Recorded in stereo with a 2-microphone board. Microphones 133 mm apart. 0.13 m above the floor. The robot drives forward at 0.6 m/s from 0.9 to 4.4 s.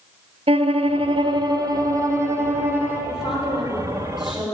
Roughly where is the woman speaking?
Centre.